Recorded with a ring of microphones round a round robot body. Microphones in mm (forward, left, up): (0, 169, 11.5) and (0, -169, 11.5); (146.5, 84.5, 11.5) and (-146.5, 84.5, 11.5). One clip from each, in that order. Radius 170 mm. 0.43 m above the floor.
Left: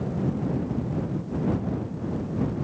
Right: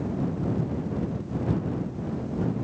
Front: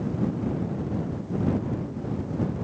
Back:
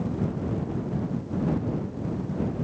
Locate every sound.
Only background noise.